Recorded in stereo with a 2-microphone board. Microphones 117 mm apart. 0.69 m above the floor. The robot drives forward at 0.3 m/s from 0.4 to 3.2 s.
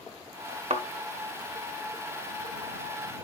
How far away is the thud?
About 1.2 m.